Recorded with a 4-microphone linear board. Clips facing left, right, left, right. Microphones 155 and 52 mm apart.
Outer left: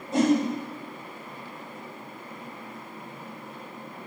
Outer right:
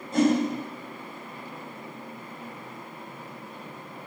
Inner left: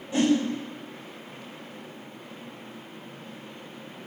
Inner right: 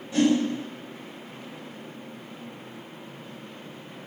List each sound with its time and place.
0.1 s a whoosh: 20° left (ahead or behind), 1.4 m